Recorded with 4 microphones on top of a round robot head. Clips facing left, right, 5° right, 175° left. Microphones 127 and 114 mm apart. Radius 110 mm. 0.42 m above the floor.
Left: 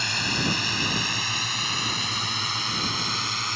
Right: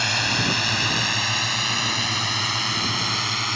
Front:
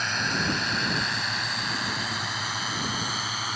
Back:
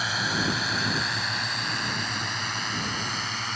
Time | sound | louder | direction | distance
0.0 | a drone | right 3 dB, back 1 dB | 100° right | ?